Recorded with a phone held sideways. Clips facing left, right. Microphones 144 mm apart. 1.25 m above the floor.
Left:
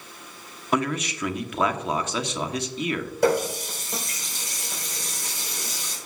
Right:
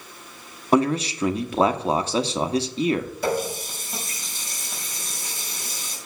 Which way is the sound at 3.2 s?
85° left.